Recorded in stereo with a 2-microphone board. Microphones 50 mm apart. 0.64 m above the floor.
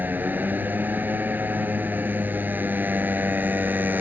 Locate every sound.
0.0 s a motorcycle: 35° right (ahead or behind)